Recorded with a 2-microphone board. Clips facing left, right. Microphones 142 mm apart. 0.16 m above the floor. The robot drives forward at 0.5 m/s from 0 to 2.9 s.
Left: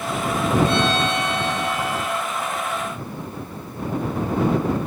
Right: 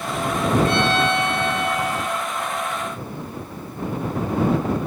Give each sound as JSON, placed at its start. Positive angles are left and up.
{"t": 0.7, "sound": "a violin", "side_deg": -65, "distance_m": 1.3}